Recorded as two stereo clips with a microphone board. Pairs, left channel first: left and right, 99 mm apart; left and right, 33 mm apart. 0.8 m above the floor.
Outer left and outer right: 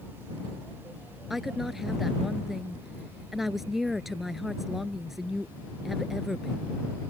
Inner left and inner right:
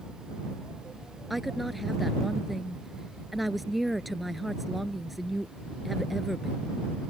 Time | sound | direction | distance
1.3 | a woman speaking | centre (ahead or behind) | ?